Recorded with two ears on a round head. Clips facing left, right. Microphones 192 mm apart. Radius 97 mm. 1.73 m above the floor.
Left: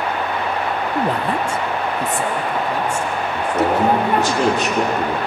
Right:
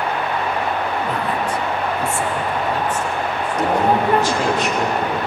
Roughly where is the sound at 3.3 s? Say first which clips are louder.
Left 3 dB; left.